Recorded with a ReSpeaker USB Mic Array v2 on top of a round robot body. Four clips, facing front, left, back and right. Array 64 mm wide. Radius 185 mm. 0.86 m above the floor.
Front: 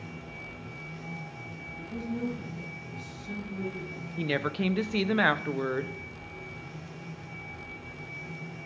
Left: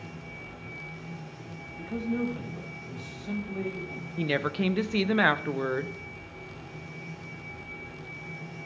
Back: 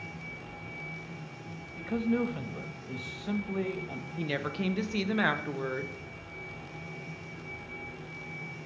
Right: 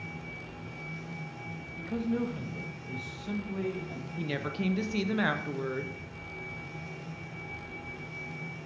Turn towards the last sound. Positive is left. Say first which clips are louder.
# left 6 dB, front 4 dB
turn(degrees=60)